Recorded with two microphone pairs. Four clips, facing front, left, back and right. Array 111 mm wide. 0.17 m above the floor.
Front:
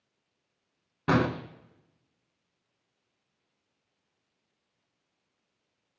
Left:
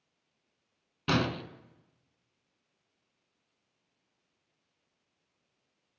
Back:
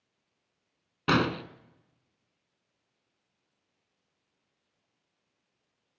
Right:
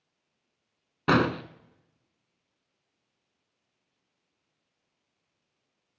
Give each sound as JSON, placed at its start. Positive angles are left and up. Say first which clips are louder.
{"t": 1.1, "sound": "an explosion", "louder": "right 6 dB, front 1 dB", "azimuth_deg": -105, "distance_m": 0.6}